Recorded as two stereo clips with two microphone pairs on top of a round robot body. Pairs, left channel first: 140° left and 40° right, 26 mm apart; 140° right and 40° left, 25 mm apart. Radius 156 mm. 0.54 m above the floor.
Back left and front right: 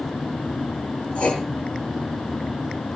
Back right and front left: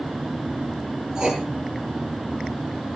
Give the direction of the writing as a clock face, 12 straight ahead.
9 o'clock.